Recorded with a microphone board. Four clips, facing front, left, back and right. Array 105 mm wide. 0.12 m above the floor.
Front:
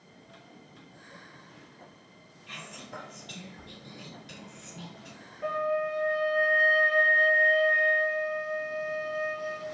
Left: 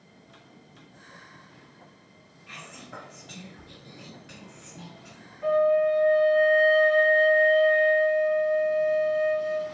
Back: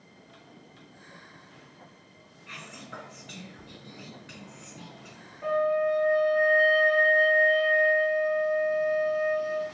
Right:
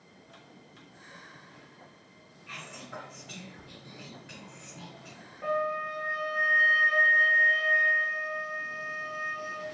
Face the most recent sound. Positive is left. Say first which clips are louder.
# left 10 dB, back 4 dB
turn(degrees=-90)